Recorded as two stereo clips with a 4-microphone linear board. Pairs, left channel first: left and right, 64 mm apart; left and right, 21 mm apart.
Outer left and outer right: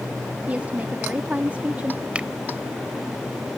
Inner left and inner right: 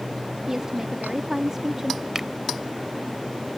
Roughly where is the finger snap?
Centre.